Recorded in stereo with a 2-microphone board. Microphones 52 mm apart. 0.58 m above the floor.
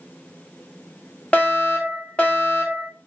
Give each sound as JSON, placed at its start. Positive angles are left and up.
{"t": 1.3, "sound": "a fire alarm", "side_deg": 25, "distance_m": 1.7}